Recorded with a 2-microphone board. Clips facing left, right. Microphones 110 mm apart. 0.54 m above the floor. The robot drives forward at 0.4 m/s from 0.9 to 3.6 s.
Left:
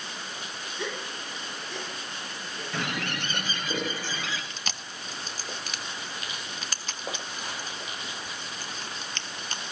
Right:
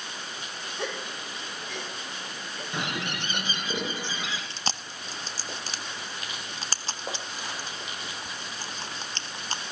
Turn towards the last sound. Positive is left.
turn(degrees=-35)  # may be behind; listen again after turning